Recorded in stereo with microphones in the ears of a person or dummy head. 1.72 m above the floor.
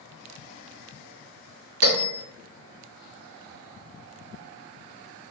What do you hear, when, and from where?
1.8 s a bell: 85° right, 2.0 m